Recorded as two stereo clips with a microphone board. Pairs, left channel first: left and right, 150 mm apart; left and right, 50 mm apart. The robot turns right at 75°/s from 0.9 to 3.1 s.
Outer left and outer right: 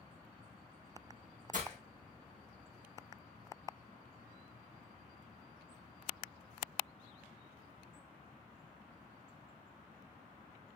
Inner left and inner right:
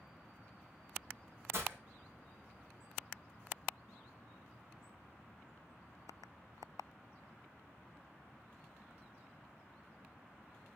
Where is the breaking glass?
60° right (ahead or behind), 3 m; by 1.8 s 40° right (ahead or behind), 3 m.